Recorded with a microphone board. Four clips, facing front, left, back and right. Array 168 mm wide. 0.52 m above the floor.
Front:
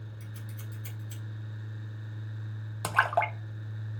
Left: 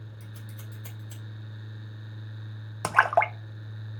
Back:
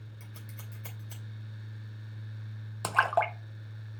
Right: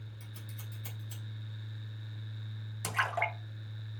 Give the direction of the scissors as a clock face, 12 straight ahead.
7 o'clock.